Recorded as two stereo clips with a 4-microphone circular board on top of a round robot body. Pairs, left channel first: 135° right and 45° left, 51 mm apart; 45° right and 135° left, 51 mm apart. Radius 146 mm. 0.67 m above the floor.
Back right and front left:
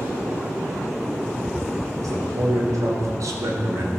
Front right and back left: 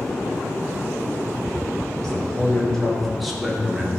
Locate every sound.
2.0 s a man speaking: 35° left, 3.5 m; by 3.9 s 60° left, 1.9 m